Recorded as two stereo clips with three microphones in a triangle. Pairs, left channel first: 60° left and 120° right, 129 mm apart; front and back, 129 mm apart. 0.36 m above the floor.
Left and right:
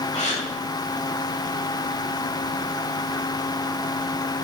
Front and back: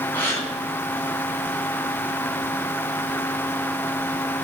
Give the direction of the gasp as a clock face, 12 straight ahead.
10 o'clock.